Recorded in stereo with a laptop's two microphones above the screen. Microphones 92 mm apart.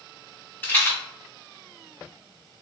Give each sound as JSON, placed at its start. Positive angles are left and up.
{"t": 0.6, "sound": "a rattle", "side_deg": 25, "distance_m": 0.7}